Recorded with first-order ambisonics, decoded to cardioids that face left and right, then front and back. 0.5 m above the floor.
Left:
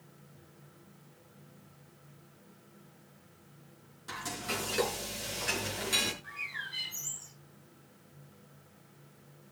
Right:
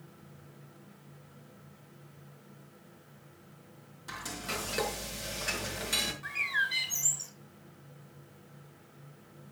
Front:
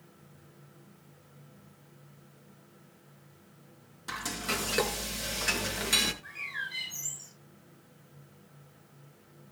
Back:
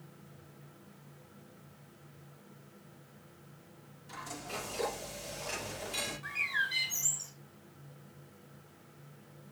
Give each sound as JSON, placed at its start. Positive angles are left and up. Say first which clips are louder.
{"t": 4.1, "sound": "frying", "louder": "left 1 dB, front 9 dB", "azimuth_deg": -5, "distance_m": 4.5}
{"t": 6.2, "sound": "a bird", "louder": "right 9 dB, back 5 dB", "azimuth_deg": -115, "distance_m": 4.0}